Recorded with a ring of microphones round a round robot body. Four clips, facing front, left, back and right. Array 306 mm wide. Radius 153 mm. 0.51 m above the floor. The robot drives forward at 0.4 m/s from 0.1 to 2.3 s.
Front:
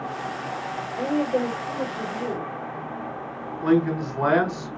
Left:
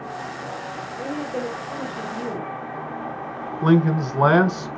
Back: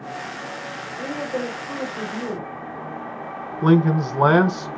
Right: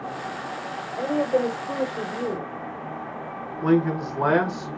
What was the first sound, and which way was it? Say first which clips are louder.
A woman speaking: right 6 dB, front 4 dB; 75° right.